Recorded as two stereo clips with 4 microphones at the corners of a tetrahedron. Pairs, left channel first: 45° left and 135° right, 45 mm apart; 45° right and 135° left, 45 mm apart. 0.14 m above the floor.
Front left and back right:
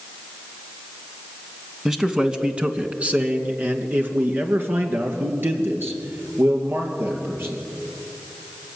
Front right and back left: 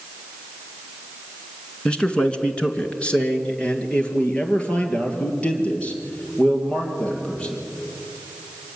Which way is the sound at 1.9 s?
70° right.